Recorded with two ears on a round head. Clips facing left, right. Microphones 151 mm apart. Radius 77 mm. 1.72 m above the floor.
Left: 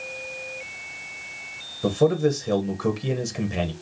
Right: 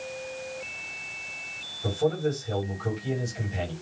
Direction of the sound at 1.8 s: 85° left.